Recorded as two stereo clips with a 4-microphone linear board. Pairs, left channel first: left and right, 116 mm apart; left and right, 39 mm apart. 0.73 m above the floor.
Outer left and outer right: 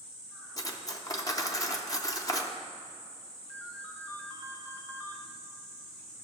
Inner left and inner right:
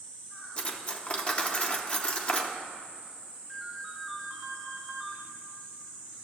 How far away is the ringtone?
About 3 m.